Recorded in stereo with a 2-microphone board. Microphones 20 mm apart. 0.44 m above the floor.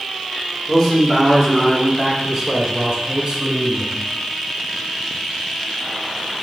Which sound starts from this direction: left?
A man speaking, at 0.7 s.